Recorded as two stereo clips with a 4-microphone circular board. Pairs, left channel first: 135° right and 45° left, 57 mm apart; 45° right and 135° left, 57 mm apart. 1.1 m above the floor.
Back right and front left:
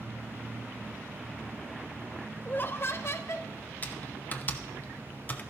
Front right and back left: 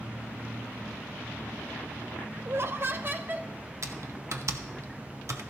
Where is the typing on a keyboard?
165° left, 0.8 m.